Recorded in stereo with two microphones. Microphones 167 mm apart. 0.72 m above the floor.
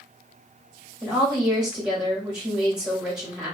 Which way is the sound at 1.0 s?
5° right (ahead or behind).